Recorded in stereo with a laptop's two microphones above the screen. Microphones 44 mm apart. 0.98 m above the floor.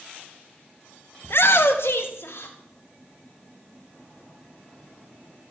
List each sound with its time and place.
1.2 s a shout: 55° left (ahead or behind), 0.7 m; by 2.5 s 70° left (ahead or behind), 1.9 m